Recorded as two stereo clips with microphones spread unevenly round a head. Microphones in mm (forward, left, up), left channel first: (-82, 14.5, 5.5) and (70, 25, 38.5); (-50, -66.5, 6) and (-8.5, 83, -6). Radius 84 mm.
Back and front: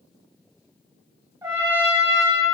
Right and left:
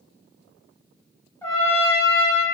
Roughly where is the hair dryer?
No hair dryer in this recording.